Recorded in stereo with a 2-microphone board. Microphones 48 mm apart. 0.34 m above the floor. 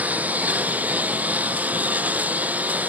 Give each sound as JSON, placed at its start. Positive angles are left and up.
{"t": 0.0, "sound": "a lawn mower", "side_deg": -40}